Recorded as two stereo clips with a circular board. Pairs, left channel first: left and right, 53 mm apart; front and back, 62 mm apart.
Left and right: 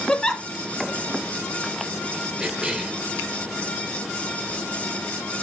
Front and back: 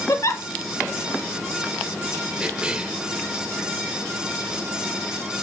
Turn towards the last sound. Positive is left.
turn(degrees=-135)